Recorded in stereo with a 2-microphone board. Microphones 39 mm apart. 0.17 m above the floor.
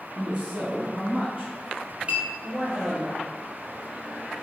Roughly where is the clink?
Right.